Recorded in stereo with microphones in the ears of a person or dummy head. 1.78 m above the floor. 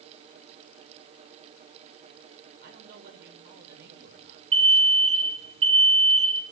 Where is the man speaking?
55° right (ahead or behind), 7.5 m.